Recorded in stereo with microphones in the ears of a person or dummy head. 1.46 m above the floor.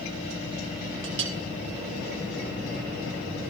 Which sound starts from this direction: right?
A clink, at 1.0 s.